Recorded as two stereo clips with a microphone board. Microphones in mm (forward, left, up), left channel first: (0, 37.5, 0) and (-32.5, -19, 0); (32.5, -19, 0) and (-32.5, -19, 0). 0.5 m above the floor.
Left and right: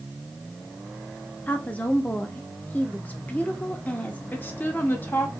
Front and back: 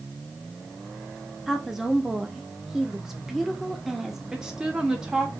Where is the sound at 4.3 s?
105° left, 1.0 m.